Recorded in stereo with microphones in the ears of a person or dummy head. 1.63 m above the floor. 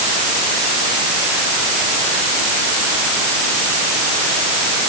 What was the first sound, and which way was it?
Only background noise.